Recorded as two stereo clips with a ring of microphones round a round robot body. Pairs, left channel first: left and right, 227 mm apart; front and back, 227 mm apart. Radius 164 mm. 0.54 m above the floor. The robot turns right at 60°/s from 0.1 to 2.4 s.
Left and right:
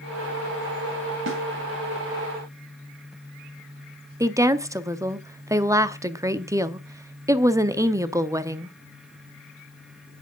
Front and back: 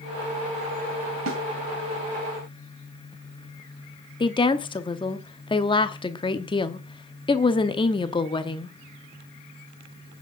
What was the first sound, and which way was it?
A snare drum, 135° right.